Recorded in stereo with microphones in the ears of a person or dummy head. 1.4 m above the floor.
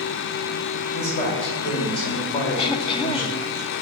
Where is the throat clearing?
30° left (ahead or behind), 1.0 m.